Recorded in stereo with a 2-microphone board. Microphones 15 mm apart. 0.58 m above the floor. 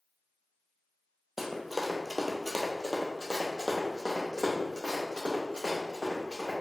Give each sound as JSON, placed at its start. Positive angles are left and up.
{"t": 1.4, "sound": "running footsteps", "side_deg": -25, "distance_m": 1.0}